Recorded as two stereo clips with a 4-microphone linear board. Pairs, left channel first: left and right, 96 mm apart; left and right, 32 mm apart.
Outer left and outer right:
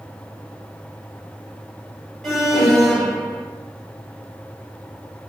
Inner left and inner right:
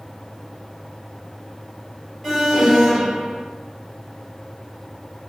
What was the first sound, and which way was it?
An alarm, 5° left (ahead or behind).